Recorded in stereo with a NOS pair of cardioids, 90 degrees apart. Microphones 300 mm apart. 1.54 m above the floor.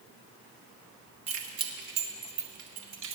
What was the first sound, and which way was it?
Keys jangling, 40° right.